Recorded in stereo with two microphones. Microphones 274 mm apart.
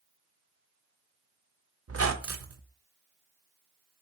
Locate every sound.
1.9 s a squeak: 60° right (ahead or behind), 0.6 m